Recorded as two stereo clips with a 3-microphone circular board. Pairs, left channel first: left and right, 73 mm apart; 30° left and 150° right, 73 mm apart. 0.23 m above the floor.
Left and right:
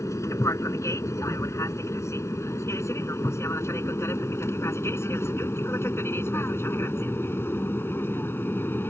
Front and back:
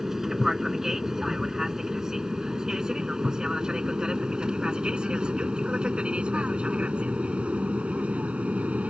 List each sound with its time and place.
0.0 s an aircraft: 125° left; by 8.9 s 140° left